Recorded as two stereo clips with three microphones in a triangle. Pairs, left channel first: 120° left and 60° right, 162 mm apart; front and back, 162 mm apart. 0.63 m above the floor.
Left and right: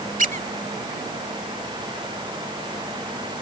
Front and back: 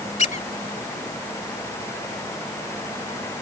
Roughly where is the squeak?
Ahead right.